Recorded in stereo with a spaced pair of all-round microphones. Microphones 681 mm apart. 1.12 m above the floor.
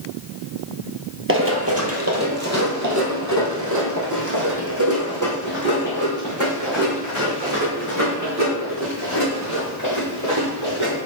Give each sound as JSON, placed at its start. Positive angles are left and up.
{"t": 1.3, "sound": "running footsteps", "side_deg": -20, "distance_m": 1.2}